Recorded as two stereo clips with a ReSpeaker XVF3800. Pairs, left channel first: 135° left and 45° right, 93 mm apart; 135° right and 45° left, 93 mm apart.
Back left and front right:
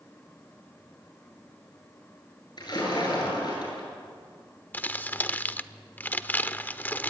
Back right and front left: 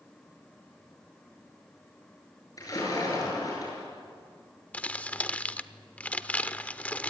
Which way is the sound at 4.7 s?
175° left.